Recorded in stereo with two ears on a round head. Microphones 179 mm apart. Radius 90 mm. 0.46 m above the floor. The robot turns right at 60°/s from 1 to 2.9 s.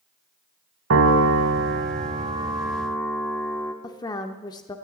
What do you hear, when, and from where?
0.9 s a piano: 105° right, 1.1 m; by 3.7 s 10° left, 1.1 m
3.8 s a woman speaking: 20° left (ahead or behind), 0.7 m